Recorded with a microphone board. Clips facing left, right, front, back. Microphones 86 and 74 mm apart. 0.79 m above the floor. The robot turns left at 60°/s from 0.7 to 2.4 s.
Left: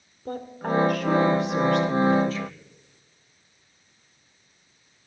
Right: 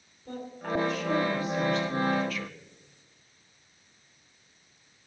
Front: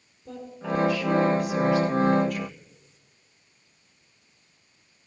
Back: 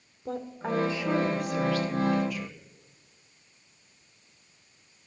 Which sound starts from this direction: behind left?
A woman speaking, at 0.2 s.